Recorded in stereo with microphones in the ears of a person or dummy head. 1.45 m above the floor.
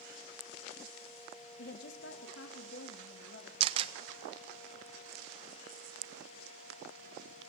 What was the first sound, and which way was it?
A woman speaking, 60° left (ahead or behind).